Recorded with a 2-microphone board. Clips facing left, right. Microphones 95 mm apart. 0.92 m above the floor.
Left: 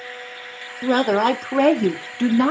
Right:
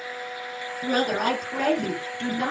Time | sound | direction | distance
0.8 | a woman speaking | 45° left (ahead or behind) | 1.8 m